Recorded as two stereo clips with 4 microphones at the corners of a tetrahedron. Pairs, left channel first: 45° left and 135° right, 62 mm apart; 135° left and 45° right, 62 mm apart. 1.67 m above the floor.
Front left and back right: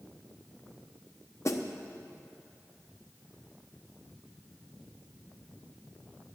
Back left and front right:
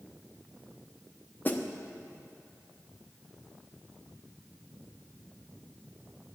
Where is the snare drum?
80° left, 0.9 m.